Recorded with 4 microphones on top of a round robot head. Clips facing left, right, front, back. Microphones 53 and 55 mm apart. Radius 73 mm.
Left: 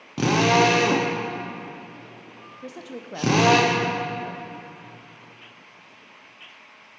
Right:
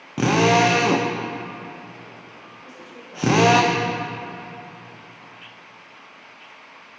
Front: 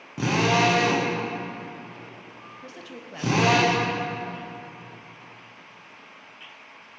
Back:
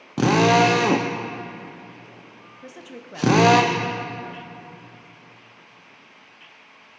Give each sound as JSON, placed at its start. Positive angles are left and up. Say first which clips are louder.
{"t": 0.2, "sound": "a drill", "louder": "right 2 dB, back 5 dB", "azimuth_deg": -165, "distance_m": 0.6}
{"t": 2.6, "sound": "a woman speaking", "louder": "left 8 dB, back 3 dB", "azimuth_deg": 105, "distance_m": 0.7}